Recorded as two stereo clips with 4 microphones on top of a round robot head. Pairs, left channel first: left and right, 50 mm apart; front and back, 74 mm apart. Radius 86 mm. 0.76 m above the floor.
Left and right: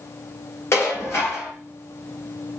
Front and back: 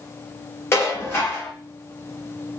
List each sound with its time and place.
0.7 s dishes clattering: 55° left, 3 m